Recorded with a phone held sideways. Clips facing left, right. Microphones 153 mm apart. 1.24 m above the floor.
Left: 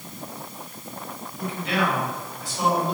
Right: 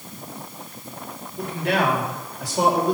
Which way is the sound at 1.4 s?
70° right (ahead or behind).